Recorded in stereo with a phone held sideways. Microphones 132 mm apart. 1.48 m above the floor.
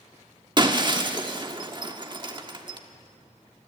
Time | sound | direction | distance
0.6 | breaking glass | 35° right (ahead or behind) | 1.3 m